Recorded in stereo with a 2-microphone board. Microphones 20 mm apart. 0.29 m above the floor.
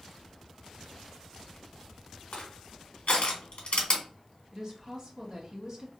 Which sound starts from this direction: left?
Crushing, at 2.3 s.